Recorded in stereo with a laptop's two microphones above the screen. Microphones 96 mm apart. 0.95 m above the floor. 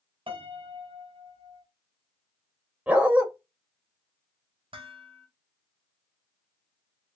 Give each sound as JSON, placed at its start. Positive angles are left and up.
{"t": 0.3, "sound": "a piano", "side_deg": -70, "distance_m": 0.8}
{"t": 2.9, "sound": "a dog barking", "side_deg": -15, "distance_m": 0.8}
{"t": 4.7, "sound": "dishes clattering", "side_deg": -80, "distance_m": 0.8}